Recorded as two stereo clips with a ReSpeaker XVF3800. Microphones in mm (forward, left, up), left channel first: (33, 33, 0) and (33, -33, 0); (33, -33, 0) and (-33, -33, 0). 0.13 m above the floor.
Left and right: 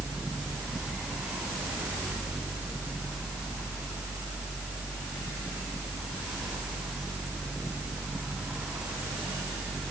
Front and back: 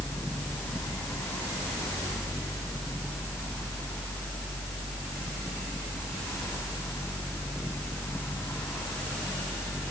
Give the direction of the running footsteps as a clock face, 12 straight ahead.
No running footsteps in this recording.